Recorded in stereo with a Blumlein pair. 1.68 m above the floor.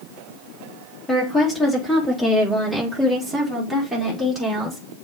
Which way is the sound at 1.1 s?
5° left.